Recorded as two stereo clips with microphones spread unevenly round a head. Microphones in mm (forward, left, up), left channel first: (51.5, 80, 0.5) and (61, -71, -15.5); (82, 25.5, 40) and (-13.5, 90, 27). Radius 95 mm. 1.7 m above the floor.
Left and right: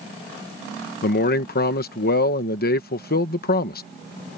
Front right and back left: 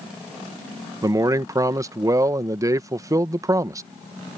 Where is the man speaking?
80° left.